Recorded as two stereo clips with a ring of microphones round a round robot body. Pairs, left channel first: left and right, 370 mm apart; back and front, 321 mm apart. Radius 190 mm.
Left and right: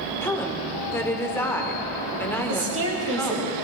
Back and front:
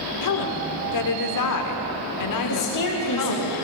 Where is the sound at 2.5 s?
145° right, 3.5 m.